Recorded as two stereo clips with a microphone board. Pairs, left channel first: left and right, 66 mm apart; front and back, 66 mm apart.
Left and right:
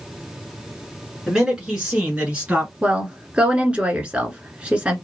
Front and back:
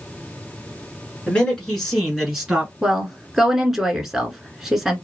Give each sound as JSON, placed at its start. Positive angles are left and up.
{"t": 1.3, "sound": "a man speaking", "azimuth_deg": -30, "distance_m": 1.6}
{"t": 2.8, "sound": "a woman speaking", "azimuth_deg": -105, "distance_m": 1.0}